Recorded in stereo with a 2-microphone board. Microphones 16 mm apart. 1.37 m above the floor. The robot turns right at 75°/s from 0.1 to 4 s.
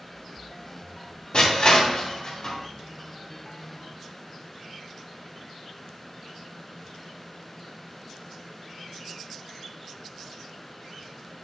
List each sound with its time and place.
1.3 s crushing: 55° left (ahead or behind), 3 m; by 2.6 s 30° left (ahead or behind), 3 m